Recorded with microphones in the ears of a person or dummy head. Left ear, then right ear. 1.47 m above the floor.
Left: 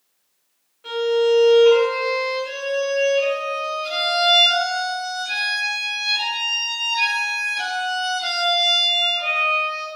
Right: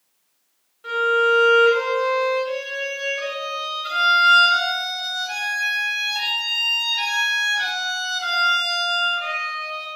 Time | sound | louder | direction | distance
0.8 | a violin | right 1 dB | 15° right (ahead or behind) | 3.5 m